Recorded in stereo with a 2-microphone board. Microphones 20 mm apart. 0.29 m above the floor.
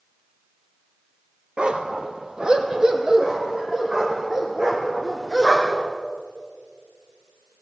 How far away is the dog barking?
About 1.7 m.